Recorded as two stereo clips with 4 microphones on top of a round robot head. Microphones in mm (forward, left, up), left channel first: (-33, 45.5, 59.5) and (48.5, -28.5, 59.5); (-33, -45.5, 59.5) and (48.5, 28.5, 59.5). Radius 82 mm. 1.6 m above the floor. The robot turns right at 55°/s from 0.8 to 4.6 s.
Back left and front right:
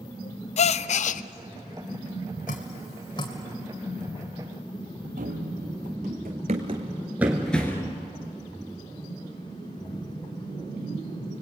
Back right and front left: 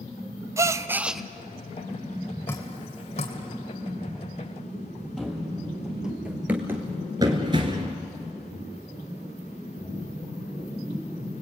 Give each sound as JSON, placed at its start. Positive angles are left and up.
{"t": 0.6, "sound": "a gasp", "azimuth_deg": 110, "distance_m": 0.5}
{"t": 2.5, "sound": "dripping", "azimuth_deg": 150, "distance_m": 2.0}
{"t": 5.2, "sound": "running footsteps", "azimuth_deg": -50, "distance_m": 3.5}